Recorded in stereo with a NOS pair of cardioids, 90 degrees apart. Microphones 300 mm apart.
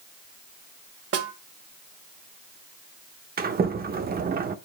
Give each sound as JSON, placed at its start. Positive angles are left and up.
{"t": 1.1, "sound": "a snare drum", "azimuth_deg": -50, "distance_m": 1.1}
{"t": 3.4, "sound": "a sliding door", "azimuth_deg": -30, "distance_m": 0.8}